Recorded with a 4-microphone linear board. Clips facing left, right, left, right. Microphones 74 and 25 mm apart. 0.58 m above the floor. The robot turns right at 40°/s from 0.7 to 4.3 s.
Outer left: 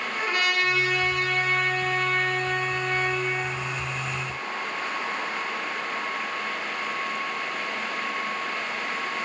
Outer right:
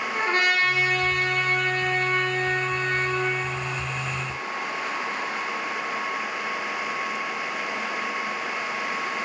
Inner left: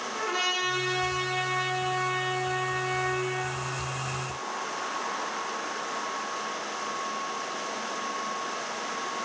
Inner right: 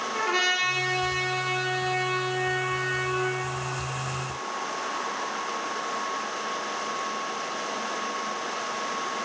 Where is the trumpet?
145° right, 5 m; by 3.4 s 40° right, 5 m.